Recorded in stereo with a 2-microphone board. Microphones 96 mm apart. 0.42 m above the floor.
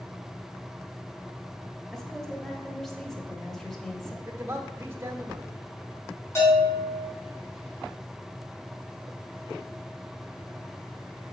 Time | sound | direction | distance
1.9 | a woman speaking | 5° left (ahead or behind) | 1.6 m
4.2 | a man speaking | 25° right (ahead or behind) | 1.0 m
6.3 | a bell | 30° left (ahead or behind) | 4.5 m